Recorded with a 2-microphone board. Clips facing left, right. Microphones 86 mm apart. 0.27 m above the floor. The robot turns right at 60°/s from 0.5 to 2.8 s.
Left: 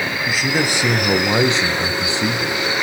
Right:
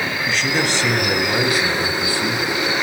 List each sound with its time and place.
0.3 s a man speaking: 10° left (ahead or behind), 1.1 m; by 2.6 s 15° left (ahead or behind), 1.1 m